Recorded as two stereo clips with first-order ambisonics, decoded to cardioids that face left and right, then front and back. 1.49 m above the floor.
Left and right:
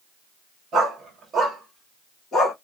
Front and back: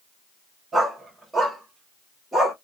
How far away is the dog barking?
About 1.2 m.